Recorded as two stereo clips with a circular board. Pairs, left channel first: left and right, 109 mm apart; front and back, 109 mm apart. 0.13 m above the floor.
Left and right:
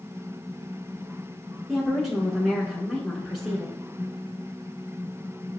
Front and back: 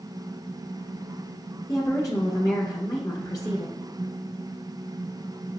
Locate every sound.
1.7 s a woman speaking: straight ahead, 1.2 m